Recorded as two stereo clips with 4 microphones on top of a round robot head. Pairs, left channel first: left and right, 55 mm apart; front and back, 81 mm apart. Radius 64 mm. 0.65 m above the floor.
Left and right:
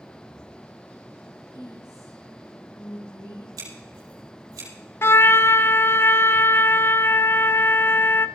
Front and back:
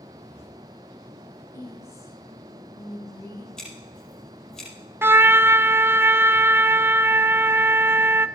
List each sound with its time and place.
1.5 s a woman speaking: 50° left, 3 m
3.6 s scissors: 85° right, 7.5 m
5.0 s a trumpet: 125° left, 0.6 m